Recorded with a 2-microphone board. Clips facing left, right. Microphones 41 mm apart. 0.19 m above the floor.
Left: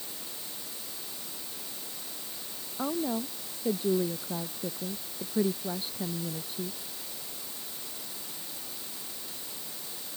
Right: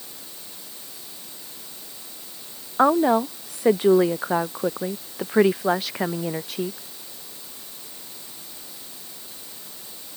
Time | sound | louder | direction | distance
2.8 | a woman speaking | right 14 dB | 85° right | ?